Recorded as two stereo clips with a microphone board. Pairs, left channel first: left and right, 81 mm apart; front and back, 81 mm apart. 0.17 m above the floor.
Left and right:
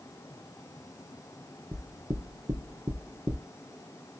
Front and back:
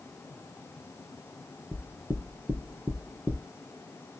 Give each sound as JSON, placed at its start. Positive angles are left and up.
{"t": 1.7, "sound": "knocking", "azimuth_deg": -120, "distance_m": 2.0}